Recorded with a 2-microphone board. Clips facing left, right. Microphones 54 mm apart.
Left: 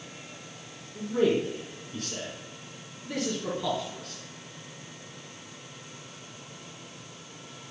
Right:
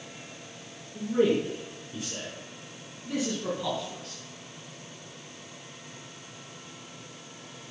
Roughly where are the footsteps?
I don't hear footsteps.